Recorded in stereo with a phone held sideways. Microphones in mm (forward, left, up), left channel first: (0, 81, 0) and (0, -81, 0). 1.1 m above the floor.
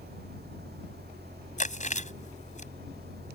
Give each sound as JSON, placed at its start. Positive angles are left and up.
{"t": 0.0, "sound": "a fan", "side_deg": -85}
{"t": 1.6, "sound": "chewing", "side_deg": 50}